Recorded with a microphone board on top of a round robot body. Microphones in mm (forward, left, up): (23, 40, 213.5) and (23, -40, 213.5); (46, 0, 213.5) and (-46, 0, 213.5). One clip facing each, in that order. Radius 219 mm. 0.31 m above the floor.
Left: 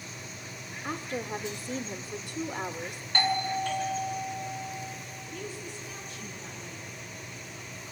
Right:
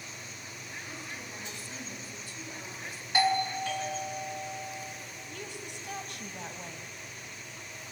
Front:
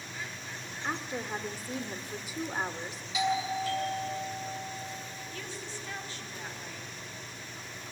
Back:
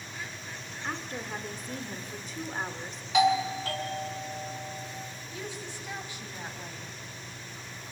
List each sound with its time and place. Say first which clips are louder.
0.8 s a woman speaking: left 13 dB, front 1 dB; 75° left, 1.4 m
3.1 s a doorbell: right 1 dB, back 6 dB; 170° right, 4.5 m
5.3 s a woman speaking: left 4 dB, back 4 dB; 105° right, 3 m